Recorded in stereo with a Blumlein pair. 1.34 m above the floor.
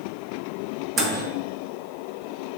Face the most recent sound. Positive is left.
turn(degrees=-25)